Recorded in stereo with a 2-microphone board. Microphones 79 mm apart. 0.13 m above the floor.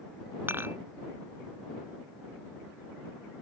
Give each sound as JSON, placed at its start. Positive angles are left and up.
{"t": 0.5, "sound": "dishes clattering", "side_deg": -30}